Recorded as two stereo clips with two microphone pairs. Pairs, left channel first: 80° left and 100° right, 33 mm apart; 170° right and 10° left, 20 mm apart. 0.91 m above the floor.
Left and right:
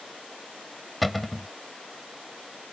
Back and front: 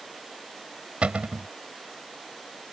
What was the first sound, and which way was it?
A cupboard door, 10° right.